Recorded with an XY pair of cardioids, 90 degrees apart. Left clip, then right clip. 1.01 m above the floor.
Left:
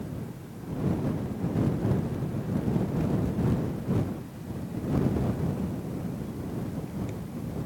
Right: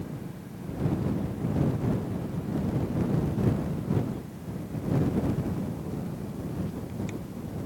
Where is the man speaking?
No man speaking in this recording.